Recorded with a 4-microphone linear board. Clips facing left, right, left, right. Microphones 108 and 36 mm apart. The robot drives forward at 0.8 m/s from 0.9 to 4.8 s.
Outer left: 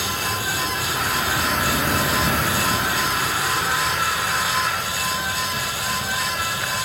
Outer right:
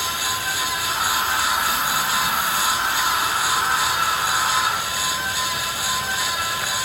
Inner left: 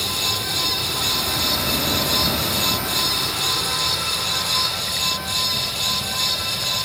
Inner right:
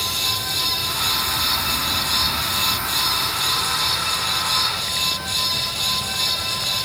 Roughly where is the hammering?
I don't hear hammering.